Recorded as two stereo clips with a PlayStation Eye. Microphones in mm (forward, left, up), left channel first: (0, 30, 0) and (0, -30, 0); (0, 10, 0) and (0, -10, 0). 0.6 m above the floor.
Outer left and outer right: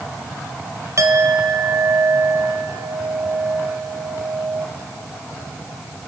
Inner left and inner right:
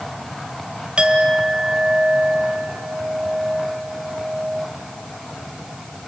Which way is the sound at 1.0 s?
55° right (ahead or behind).